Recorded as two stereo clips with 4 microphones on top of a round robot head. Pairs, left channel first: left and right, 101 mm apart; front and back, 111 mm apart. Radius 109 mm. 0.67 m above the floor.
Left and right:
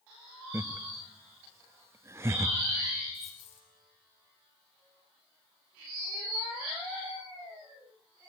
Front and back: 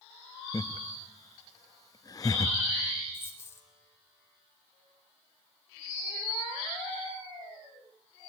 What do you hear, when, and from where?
0.5 s laughter: 40° right, 0.8 m
3.1 s a dropped coin: 65° left, 4 m